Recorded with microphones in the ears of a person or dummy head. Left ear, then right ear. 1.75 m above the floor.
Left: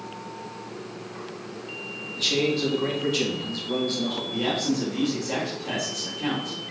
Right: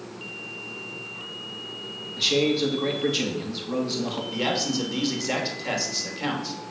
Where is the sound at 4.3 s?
45° right (ahead or behind), 3 m.